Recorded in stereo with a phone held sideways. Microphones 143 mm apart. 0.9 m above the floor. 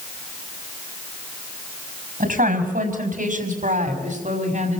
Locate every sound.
2.2 s a woman speaking: 85° right, 5.5 m; by 4.8 s 65° right (ahead or behind), 6 m